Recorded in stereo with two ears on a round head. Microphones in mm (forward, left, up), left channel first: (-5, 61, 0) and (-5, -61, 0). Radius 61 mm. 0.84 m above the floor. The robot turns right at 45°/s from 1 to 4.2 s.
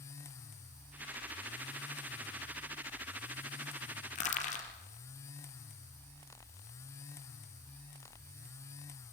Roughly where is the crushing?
Left.